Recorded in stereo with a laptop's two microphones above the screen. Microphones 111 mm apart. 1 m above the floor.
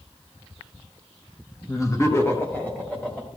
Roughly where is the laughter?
Left.